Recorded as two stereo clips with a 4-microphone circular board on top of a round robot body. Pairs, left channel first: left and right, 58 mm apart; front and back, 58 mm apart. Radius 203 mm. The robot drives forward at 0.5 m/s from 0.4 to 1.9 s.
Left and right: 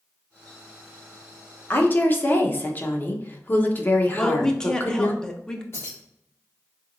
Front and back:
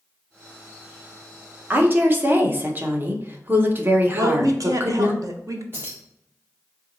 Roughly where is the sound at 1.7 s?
Behind left.